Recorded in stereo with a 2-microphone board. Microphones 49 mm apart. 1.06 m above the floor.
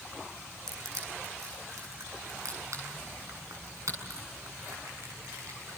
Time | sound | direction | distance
0.7 | crushing | 80° right | 7 m